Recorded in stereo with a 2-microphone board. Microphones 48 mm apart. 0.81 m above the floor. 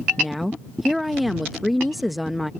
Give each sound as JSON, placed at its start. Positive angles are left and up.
{"t": 0.2, "sound": "a woman speaking", "side_deg": 0}